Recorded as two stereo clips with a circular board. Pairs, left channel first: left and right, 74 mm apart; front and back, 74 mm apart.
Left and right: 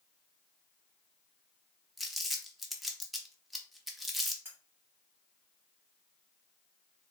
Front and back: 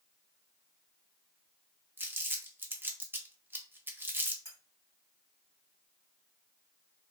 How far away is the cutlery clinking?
About 2 m.